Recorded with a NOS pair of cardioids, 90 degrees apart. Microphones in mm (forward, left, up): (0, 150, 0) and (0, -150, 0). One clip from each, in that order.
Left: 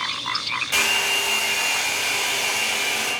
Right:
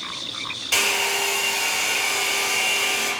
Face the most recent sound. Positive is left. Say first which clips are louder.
# even
turn(degrees=-45)